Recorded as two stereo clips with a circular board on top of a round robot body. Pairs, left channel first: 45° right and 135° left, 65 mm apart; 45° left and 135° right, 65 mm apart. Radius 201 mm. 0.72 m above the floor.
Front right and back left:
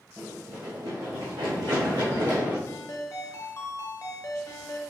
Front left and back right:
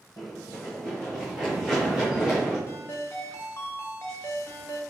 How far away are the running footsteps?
About 0.7 m.